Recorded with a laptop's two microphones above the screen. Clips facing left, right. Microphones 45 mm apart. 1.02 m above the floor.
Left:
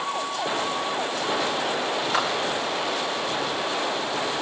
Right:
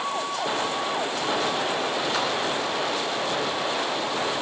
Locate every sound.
2.1 s a clap: 25° left (ahead or behind), 4 m